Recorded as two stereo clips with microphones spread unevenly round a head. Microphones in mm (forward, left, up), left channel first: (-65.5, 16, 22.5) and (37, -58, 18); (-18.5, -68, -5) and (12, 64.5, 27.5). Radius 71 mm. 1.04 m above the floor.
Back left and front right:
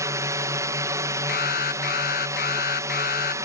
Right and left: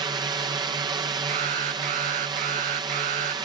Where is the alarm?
115° left.